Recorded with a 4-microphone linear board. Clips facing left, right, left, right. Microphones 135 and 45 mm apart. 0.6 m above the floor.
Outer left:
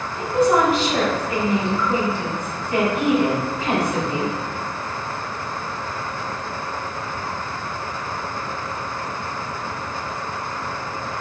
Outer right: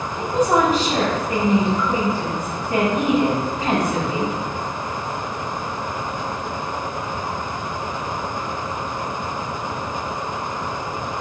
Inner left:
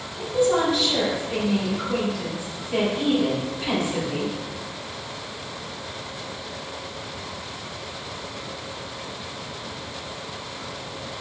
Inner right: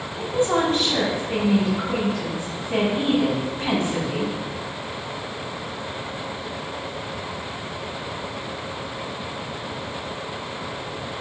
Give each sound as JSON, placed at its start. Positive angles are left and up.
{"t": 0.2, "sound": "a woman speaking", "side_deg": -40, "distance_m": 1.4}